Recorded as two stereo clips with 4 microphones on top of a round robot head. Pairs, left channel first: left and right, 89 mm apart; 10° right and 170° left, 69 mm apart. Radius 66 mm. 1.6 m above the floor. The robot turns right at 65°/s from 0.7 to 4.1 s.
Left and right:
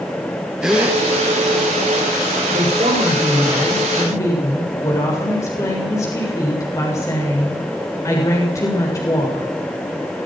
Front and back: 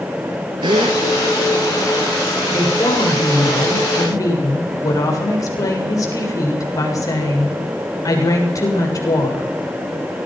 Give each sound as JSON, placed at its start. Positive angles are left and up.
{"t": 0.6, "sound": "a gasp", "azimuth_deg": -170, "distance_m": 1.2}
{"t": 2.5, "sound": "a woman speaking", "azimuth_deg": -75, "distance_m": 7.0}